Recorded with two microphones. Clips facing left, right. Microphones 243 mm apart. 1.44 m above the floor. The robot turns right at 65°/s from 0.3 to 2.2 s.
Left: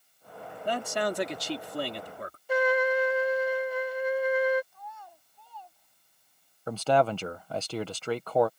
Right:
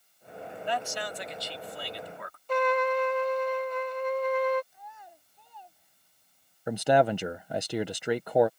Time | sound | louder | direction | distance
0.7 | a man speaking | left 5 dB | 40° left | ?
2.5 | a trumpet | left 1 dB | 10° left (ahead or behind) | ?
4.7 | a child speaking | left 3 dB | 20° right (ahead or behind) | ?
6.7 | a man speaking | right 2 dB | 15° right (ahead or behind) | ?